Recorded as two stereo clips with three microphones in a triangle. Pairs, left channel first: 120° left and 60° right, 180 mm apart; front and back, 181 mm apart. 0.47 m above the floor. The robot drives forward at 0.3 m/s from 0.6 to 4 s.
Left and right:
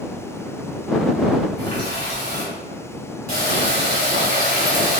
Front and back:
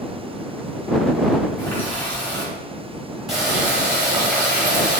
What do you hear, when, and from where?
1.6 s a running tap: 75° right, 1.9 m; by 5.0 s 100° right, 1.8 m